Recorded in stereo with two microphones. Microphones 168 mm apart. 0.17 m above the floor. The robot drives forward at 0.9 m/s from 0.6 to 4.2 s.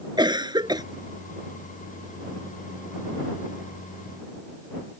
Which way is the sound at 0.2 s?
25° right (ahead or behind).